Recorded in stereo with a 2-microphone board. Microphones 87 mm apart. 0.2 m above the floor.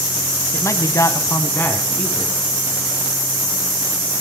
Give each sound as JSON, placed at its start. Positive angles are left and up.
{"t": 0.5, "sound": "a man speaking", "side_deg": 35, "distance_m": 1.6}